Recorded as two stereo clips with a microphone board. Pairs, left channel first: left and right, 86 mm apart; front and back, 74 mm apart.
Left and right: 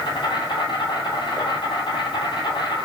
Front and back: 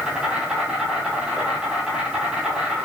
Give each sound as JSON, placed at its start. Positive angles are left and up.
{"t": 0.0, "sound": "an insect", "azimuth_deg": 105, "distance_m": 1.7}